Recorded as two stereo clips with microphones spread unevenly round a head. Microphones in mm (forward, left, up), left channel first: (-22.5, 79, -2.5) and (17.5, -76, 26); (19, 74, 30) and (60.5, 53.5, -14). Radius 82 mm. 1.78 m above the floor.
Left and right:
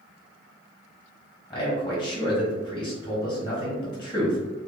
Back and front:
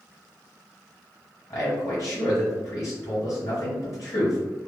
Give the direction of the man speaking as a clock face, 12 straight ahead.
6 o'clock.